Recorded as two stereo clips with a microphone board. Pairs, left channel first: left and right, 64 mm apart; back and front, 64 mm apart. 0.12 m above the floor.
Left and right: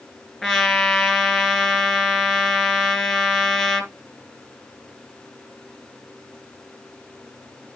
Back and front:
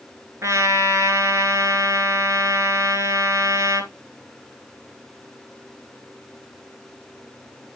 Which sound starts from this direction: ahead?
A trumpet, at 0.4 s.